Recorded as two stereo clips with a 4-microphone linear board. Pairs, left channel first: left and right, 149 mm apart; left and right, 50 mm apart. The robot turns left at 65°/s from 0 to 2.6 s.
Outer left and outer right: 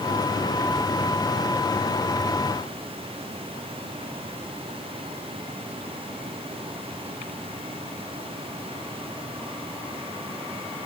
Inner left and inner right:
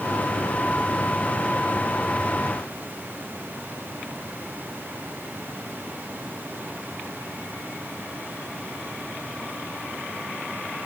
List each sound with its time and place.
Only background noise.